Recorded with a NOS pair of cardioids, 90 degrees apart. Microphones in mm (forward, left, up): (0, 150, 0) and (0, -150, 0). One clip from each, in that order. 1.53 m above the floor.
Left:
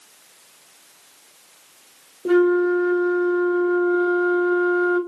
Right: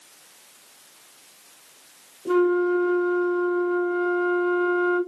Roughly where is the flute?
Ahead left.